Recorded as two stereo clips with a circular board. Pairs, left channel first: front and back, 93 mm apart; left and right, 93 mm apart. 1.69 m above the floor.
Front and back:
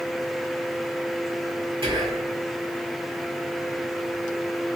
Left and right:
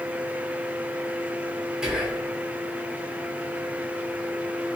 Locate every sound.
1.8 s whispering: 170° right, 1.2 m